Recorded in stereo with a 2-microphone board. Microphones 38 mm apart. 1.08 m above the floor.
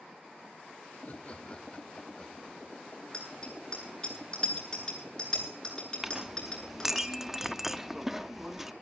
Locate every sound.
0.9 s laughter: 50° left (ahead or behind), 1.4 m; by 3.0 s 5° left (ahead or behind), 3.5 m
3.1 s a bicycle bell: 25° left (ahead or behind), 9.5 m
6.0 s a clink: 10° right (ahead or behind), 0.8 m